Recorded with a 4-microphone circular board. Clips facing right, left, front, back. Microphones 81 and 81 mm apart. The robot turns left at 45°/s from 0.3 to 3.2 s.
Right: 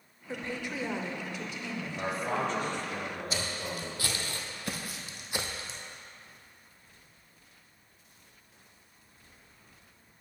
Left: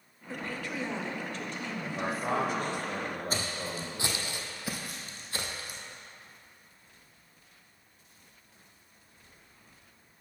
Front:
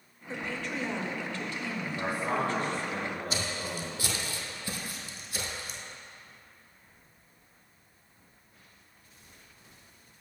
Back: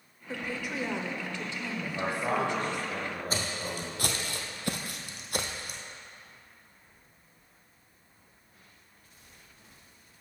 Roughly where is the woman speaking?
Right.